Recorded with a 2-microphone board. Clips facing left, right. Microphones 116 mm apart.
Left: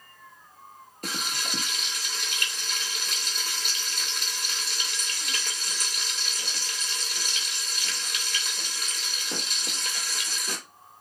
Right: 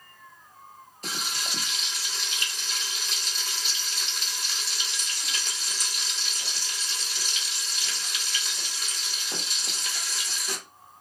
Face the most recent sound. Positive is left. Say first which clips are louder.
# left 2 dB
turn(degrees=55)  # may be behind; listen again after turning